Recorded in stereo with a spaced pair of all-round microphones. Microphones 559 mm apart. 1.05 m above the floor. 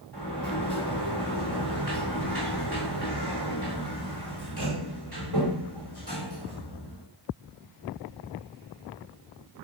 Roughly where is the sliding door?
Right.